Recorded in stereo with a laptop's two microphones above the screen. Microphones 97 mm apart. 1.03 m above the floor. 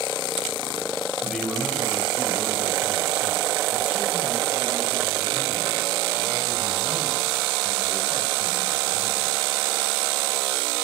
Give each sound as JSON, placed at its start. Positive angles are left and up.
{"t": 1.2, "sound": "a man speaking", "side_deg": 0, "distance_m": 9.5}